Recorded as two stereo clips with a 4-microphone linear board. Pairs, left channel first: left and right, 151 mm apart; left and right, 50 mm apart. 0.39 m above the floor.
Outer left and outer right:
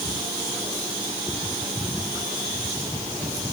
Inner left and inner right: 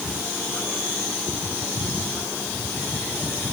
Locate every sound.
Only background noise.